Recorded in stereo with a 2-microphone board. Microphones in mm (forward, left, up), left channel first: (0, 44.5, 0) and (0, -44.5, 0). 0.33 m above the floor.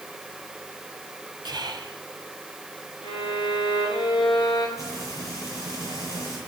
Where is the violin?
55° left (ahead or behind), 7 m.